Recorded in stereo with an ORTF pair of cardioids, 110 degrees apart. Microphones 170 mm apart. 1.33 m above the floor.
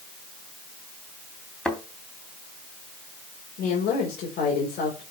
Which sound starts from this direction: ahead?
A thud, at 1.6 s.